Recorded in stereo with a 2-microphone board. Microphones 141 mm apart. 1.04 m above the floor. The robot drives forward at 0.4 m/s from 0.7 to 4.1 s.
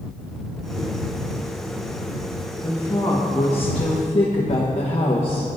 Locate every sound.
2.6 s a woman speaking: 30° left (ahead or behind), 1.4 m; by 5.6 s 50° left (ahead or behind), 1.0 m